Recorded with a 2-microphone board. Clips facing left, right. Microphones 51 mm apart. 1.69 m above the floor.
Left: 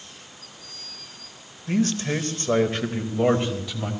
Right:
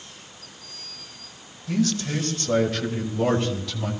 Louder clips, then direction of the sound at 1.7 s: Left 1 dB; 40° left (ahead or behind).